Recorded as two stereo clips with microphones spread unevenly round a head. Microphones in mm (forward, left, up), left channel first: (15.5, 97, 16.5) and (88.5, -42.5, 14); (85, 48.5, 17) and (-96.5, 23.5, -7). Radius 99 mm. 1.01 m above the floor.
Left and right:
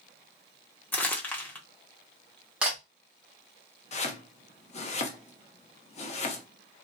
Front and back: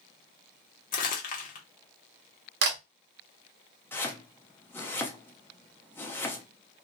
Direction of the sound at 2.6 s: 145° right.